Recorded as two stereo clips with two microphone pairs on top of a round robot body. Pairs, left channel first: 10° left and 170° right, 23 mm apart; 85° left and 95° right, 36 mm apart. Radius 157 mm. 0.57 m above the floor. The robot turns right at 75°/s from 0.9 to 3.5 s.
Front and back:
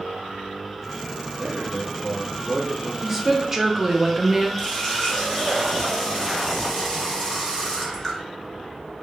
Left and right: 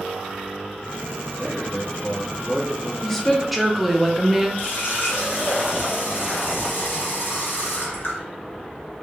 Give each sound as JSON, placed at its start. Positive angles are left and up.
{"t": 1.3, "sound": "a man speaking", "azimuth_deg": 135, "distance_m": 1.6}
{"t": 3.0, "sound": "a woman speaking", "azimuth_deg": 160, "distance_m": 0.9}
{"t": 4.6, "sound": "a running tap", "azimuth_deg": 80, "distance_m": 1.0}